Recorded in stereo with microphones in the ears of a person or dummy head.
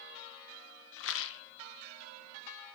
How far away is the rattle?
About 0.6 m.